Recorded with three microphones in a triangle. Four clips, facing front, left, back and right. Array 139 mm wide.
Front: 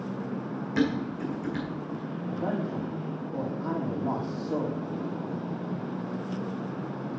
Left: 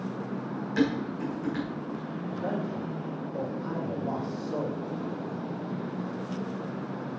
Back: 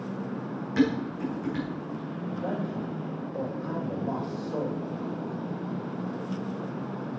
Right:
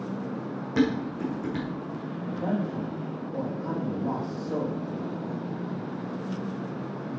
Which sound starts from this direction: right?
Dishes clattering, at 0.8 s.